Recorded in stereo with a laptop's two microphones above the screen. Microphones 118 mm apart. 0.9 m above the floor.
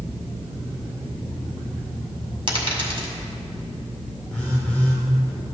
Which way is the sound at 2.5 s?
45° right (ahead or behind).